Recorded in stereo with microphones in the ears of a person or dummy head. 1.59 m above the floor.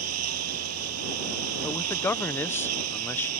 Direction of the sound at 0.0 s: 75° right (ahead or behind).